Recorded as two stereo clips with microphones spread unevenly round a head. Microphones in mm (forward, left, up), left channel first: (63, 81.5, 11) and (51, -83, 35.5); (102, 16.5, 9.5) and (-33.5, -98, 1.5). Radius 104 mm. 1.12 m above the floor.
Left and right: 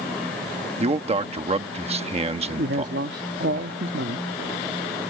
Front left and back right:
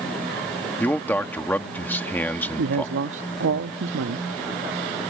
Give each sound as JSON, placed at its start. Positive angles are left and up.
{"t": 0.8, "sound": "a man speaking", "azimuth_deg": -40}
{"t": 2.6, "sound": "a man speaking", "azimuth_deg": -135}